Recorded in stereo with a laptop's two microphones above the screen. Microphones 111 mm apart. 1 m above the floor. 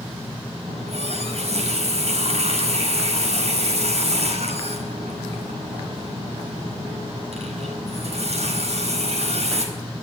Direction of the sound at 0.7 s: 75° right (ahead or behind).